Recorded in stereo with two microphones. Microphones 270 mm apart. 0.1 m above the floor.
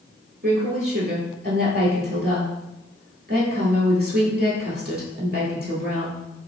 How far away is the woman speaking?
About 1.7 m.